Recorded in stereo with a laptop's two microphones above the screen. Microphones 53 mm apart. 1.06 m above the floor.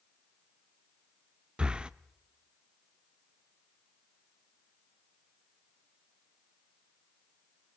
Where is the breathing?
20° right (ahead or behind), 0.6 m.